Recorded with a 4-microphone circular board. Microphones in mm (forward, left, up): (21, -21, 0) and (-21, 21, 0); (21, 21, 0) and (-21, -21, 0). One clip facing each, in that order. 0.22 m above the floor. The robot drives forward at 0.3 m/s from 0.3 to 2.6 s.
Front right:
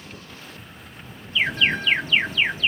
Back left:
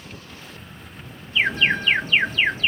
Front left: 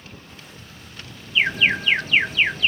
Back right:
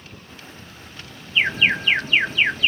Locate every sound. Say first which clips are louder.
1.4 s an alarm: back left 2 dB, even; 170° left, 1.7 m